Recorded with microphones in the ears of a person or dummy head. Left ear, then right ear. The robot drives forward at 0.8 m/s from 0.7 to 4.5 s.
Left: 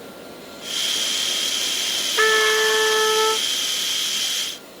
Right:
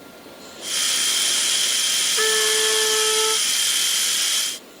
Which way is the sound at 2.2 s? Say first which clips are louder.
Left 6 dB; 10° left (ahead or behind).